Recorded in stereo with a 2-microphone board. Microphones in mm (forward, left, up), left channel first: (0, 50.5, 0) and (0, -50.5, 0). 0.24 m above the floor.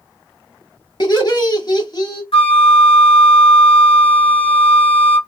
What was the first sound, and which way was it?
Laughter, 45° left (ahead or behind).